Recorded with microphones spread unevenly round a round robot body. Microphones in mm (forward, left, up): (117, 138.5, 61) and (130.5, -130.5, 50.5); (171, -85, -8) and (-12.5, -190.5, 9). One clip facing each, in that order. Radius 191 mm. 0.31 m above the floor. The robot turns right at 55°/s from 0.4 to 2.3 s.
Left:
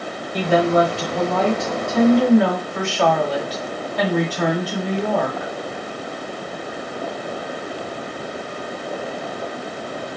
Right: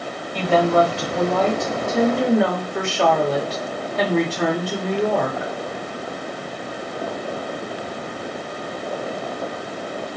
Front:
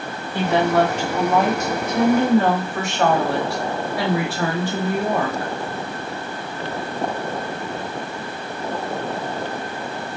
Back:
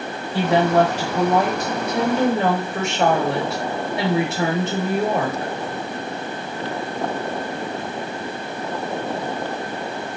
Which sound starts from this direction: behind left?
A woman speaking, at 0.3 s.